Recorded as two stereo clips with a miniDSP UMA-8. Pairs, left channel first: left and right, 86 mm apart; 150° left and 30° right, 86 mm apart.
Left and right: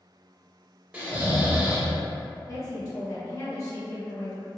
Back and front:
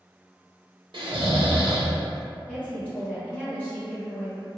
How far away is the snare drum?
I don't hear a snare drum.